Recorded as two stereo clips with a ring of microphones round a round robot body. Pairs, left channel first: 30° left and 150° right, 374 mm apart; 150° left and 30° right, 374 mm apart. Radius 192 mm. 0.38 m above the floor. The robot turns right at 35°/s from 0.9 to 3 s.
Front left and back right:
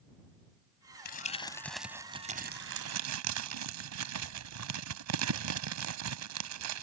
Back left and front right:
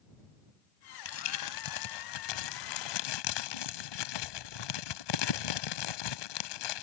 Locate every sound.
1.1 s crumpling: 95° left; by 6.8 s 165° left